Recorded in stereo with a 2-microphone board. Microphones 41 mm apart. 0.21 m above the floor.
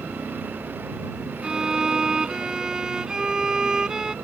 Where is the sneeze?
I don't hear a sneeze.